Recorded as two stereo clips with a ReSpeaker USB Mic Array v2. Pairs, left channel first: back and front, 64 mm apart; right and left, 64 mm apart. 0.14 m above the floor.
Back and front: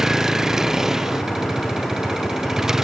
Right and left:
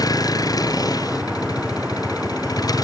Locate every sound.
0.0 s a vehicle: 80° right